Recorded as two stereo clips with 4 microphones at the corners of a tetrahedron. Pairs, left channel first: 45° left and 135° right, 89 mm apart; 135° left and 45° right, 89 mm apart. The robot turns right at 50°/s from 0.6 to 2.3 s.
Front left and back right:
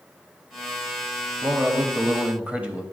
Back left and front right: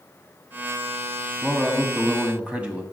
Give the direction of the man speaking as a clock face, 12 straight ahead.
4 o'clock.